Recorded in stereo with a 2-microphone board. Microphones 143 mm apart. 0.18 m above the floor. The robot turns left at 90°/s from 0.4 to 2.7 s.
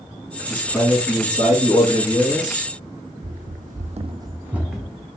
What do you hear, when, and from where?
0.4 s a man speaking: 150° right, 2.5 m; by 2.7 s 5° left, 2.5 m
3.2 s running footsteps: 70° right (ahead or behind), 0.7 m; by 5.1 s 5° left (ahead or behind), 1.0 m